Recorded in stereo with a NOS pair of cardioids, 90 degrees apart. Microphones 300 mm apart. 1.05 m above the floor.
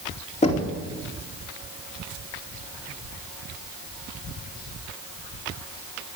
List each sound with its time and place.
0.4 s knocking: 20° left, 2 m